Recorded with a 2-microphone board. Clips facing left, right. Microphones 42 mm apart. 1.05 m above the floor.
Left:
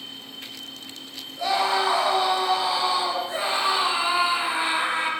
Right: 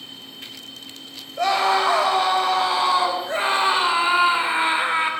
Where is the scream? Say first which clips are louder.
Right 4 dB; 65° right (ahead or behind), 6.5 m; by 5.1 s 30° right (ahead or behind), 4.5 m.